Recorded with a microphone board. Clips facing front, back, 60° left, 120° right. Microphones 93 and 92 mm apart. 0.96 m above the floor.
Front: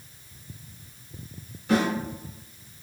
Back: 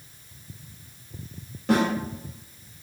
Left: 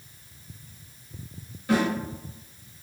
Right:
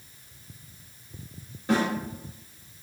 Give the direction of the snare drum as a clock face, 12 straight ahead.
6 o'clock.